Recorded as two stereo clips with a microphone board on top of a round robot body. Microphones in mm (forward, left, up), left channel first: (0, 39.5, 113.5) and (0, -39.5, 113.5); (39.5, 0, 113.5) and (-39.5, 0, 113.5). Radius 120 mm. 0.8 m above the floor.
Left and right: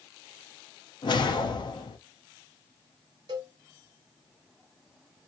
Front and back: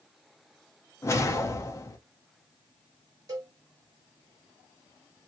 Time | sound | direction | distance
1.0 | a whoosh | 55° left | 0.6 m
3.3 | a cowbell | 130° right | 0.9 m